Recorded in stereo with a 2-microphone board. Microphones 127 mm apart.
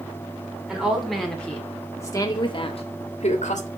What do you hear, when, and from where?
0.7 s a woman speaking: 5° right (ahead or behind), 2.5 m; by 3.7 s 70° left (ahead or behind), 1.7 m